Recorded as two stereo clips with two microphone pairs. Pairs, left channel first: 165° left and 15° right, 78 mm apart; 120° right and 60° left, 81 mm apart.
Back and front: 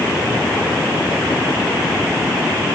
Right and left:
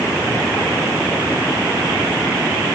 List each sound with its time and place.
Only background noise.